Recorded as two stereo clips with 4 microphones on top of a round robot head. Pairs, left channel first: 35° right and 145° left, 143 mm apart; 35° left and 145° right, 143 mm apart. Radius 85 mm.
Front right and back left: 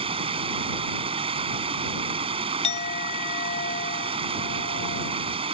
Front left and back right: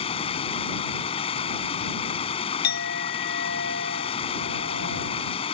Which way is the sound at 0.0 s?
90° left.